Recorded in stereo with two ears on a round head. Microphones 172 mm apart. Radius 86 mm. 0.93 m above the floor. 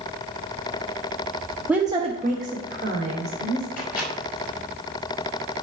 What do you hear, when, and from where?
1.7 s a woman speaking: 5° right (ahead or behind), 0.7 m; by 3.7 s 60° right (ahead or behind), 2.5 m
3.8 s a microwave: 45° left (ahead or behind), 4.5 m